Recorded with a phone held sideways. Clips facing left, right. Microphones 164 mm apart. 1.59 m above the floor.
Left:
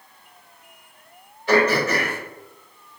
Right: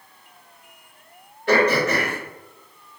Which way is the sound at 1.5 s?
60° right (ahead or behind).